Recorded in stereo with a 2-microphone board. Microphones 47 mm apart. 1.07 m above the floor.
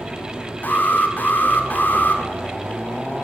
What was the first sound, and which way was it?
An alarm, 40° left (ahead or behind).